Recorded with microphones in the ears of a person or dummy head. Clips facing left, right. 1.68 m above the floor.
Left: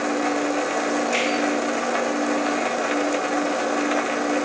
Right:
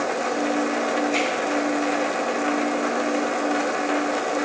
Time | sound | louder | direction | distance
1.1 | a finger snap | right 1 dB | 75° left (ahead or behind) | 4 m